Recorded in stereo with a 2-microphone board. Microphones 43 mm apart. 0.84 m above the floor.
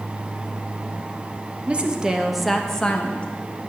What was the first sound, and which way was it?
A woman speaking, 30° right (ahead or behind).